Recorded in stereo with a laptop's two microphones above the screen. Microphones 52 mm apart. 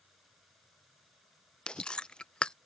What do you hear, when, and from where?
0.0 s running water: centre (ahead or behind)
1.7 s chewing: 20° left (ahead or behind)